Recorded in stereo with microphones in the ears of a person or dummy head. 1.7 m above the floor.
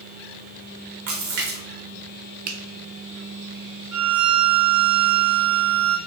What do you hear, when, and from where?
1.1 s a splash: 45° right (ahead or behind), 0.8 m
2.5 s a finger snap: 50° right (ahead or behind), 0.7 m
3.9 s a violin: 65° right (ahead or behind), 0.7 m